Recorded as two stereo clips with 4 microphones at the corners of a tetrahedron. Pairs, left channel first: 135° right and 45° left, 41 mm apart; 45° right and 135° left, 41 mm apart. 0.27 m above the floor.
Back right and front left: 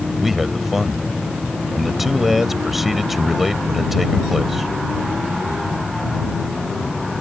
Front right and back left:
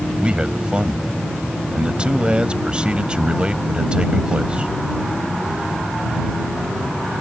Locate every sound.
0.2 s a man speaking: 125° left